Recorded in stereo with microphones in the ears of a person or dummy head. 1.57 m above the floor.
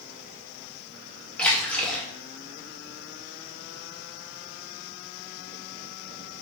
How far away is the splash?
About 2.5 m.